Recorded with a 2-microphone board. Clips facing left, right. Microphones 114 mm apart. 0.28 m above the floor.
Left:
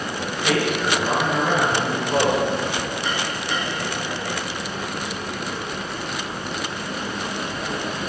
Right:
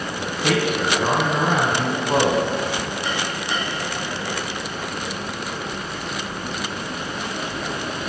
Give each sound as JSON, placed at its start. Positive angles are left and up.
{"t": 0.2, "sound": "a man speaking", "side_deg": -55, "distance_m": 2.5}